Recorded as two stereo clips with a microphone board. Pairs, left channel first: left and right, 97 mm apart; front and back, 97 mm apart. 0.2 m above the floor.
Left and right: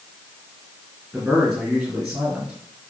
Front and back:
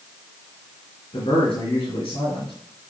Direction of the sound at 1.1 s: 25° right.